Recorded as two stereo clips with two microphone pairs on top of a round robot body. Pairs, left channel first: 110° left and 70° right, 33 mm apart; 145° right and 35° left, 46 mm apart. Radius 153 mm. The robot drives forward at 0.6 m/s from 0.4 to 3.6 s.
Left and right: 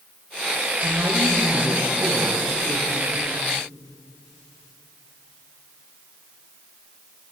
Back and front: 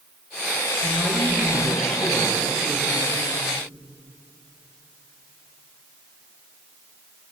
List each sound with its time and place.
0.8 s a woman speaking: 45° right, 10 m; by 3.1 s 50° right, 9 m